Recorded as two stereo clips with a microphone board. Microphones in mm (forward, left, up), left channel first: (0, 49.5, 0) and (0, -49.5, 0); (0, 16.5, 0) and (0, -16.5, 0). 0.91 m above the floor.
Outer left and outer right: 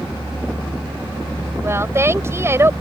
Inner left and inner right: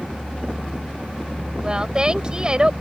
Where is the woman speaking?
25° right (ahead or behind).